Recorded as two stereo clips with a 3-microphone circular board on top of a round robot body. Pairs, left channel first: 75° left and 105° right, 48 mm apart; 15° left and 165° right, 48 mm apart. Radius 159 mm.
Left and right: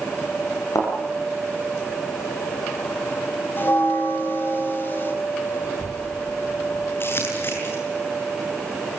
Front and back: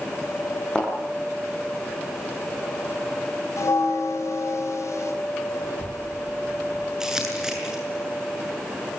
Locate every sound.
0.8 s a thud: 90° left, 5.5 m
3.6 s a bell: 30° left, 4.5 m
5.6 s a child speaking: 175° right, 6.5 m
7.0 s crumpling: 120° left, 7.5 m